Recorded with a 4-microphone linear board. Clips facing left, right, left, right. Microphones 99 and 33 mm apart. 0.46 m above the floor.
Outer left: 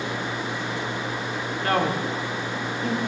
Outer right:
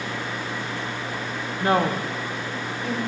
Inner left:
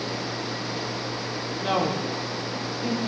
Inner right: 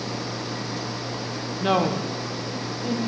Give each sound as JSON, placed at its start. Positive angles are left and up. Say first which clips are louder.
{"t": 1.6, "sound": "a woman speaking", "louder": "outer right 2 dB, inner right 3 dB", "side_deg": -30, "distance_m": 0.8}